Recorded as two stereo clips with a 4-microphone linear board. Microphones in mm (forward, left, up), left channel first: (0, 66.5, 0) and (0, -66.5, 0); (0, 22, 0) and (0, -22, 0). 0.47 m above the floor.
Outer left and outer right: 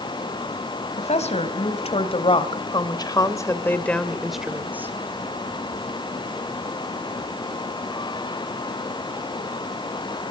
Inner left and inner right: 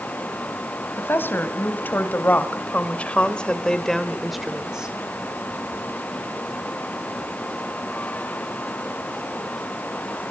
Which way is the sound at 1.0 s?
55° left (ahead or behind).